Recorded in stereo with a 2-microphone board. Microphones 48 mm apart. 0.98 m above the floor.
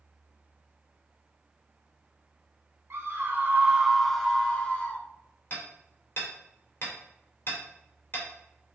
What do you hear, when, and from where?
2.9 s a scream: 70° right (ahead or behind), 0.9 m; by 5.0 s 30° left (ahead or behind), 1.5 m
5.5 s hammering: 45° left (ahead or behind), 3 m